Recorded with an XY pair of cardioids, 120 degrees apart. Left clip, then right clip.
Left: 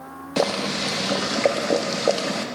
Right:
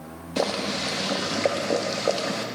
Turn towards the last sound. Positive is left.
turn(degrees=15)